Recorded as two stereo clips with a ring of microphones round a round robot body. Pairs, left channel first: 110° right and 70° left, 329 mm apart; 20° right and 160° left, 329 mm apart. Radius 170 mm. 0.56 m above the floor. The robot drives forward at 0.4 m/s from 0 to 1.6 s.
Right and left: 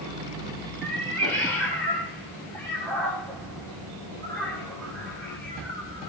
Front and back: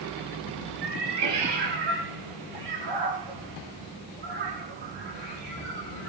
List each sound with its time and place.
0.8 s a cat meowing: 165° left, 6.5 m